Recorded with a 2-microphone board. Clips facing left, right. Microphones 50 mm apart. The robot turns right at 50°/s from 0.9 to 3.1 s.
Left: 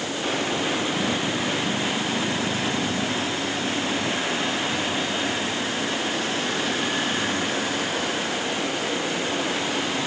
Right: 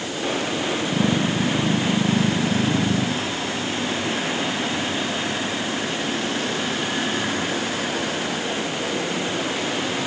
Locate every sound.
Only background noise.